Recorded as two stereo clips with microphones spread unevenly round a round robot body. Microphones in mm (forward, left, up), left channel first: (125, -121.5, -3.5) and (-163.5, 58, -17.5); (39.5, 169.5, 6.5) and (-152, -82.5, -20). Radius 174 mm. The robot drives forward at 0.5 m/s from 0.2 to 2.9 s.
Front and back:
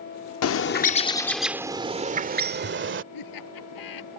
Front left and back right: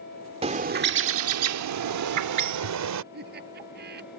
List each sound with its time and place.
0.4 s a bird: 65° right; by 3.0 s 155° right
3.1 s laughter: 60° right